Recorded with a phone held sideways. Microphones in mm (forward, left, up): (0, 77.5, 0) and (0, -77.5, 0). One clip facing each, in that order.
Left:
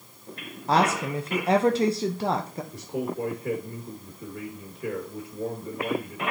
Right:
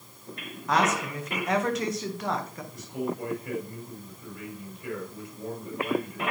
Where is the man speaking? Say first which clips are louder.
Left 1 dB; 60° left (ahead or behind), 1.7 m.